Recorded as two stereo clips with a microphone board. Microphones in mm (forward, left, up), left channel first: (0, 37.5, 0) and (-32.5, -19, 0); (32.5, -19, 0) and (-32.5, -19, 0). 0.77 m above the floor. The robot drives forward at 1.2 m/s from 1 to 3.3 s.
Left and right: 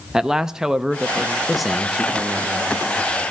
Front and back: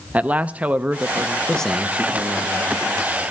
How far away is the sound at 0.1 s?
About 0.6 m.